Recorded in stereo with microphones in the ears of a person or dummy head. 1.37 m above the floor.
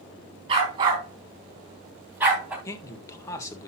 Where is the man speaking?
15° left (ahead or behind), 1.4 m.